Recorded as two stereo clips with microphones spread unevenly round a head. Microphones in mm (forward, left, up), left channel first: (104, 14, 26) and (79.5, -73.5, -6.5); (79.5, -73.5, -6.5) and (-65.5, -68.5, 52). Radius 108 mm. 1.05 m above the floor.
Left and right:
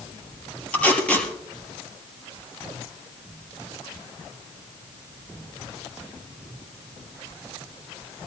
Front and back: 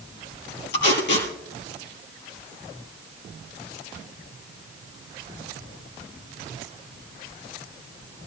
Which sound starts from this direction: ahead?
Tape being pulled, at 0.7 s.